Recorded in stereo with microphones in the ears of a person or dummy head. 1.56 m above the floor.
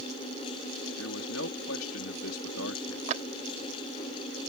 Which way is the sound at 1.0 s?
85° left.